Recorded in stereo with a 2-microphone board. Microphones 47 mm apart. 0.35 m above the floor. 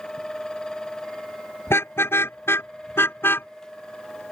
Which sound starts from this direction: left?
A car horn, at 1.7 s.